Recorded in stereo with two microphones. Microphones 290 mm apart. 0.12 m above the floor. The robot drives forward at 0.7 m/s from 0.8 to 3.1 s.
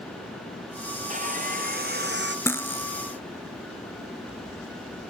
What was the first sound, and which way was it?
Sawing, 25° right (ahead or behind).